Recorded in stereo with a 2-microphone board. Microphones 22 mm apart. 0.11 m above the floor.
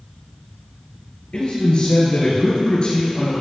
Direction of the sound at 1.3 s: 45° left (ahead or behind).